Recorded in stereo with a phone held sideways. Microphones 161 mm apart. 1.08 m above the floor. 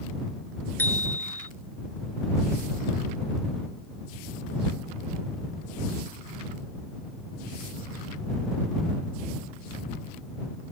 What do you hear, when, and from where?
0.8 s a bicycle bell: 10° left (ahead or behind)